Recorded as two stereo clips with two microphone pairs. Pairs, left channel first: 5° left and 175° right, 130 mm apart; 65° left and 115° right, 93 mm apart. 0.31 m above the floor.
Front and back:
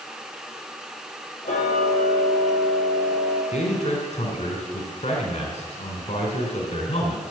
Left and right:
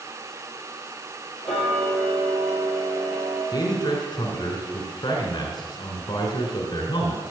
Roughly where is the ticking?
Ahead.